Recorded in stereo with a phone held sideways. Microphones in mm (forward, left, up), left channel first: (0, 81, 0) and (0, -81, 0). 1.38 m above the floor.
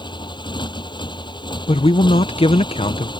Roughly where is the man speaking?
Left.